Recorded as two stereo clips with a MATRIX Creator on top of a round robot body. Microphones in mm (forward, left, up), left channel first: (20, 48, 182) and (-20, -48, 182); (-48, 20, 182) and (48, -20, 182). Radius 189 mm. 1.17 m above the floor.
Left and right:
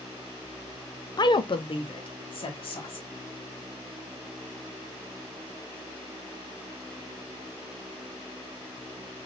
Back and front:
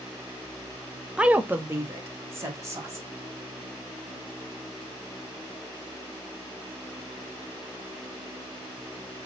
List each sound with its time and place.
1.2 s a woman speaking: 55° left, 0.6 m; by 3.1 s 40° left, 2 m